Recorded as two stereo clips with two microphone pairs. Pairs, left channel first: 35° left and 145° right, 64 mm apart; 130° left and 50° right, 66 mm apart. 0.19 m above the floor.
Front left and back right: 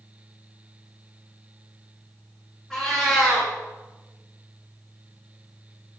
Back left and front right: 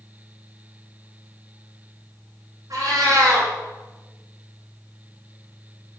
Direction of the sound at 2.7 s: 45° right.